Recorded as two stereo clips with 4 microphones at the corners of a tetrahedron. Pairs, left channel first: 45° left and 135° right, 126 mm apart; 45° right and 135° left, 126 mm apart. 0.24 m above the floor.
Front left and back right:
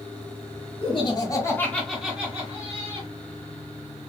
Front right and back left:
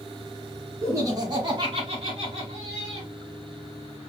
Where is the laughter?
75° left, 1.6 m; by 3.1 s 175° left, 1.9 m.